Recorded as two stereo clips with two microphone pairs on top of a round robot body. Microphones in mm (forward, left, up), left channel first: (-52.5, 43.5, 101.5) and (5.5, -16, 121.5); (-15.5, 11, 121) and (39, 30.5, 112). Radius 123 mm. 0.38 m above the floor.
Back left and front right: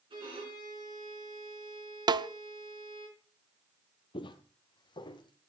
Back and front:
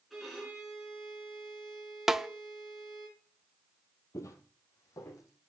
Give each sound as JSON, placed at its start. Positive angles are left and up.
{"t": 0.1, "sound": "a violin", "azimuth_deg": -70, "distance_m": 4.5}
{"t": 2.1, "sound": "a snare drum", "azimuth_deg": -50, "distance_m": 0.6}
{"t": 4.1, "sound": "footsteps", "azimuth_deg": 165, "distance_m": 0.7}